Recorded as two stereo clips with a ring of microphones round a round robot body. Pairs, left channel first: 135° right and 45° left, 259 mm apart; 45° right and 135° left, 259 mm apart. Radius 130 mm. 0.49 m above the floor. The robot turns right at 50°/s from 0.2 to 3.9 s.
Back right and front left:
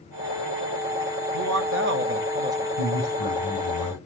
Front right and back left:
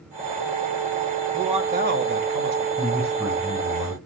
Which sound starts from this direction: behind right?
A man speaking, at 2.8 s.